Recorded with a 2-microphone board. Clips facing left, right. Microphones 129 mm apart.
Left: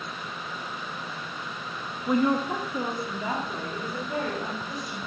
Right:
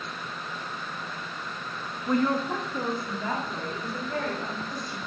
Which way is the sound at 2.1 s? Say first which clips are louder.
Left 1 dB; 10° left (ahead or behind).